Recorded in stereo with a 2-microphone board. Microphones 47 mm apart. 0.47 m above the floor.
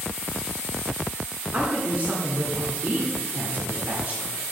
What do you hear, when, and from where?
1.5 s a woman speaking: 40° right (ahead or behind), 1.1 m